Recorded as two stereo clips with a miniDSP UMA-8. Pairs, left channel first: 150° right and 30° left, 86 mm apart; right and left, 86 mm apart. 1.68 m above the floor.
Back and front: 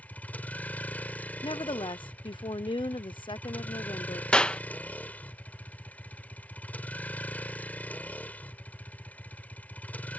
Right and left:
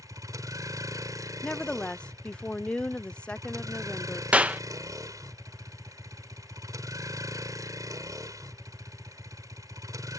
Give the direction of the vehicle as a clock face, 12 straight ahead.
7 o'clock.